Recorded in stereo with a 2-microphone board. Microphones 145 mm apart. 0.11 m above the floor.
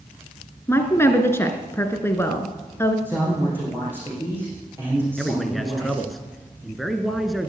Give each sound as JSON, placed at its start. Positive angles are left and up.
{"t": 0.7, "sound": "a woman speaking", "side_deg": 15, "distance_m": 1.6}
{"t": 3.0, "sound": "a man speaking", "side_deg": -15, "distance_m": 5.5}
{"t": 5.2, "sound": "a man speaking", "side_deg": 0, "distance_m": 1.3}